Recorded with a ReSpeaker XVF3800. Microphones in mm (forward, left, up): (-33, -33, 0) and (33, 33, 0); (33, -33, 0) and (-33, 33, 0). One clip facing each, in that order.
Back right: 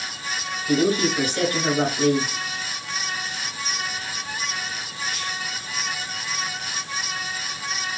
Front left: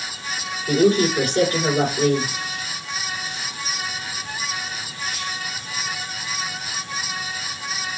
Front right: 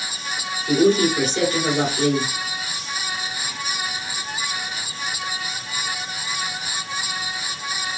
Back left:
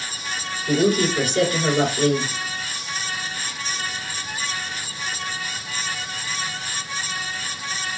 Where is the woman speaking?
100° left, 2.5 m.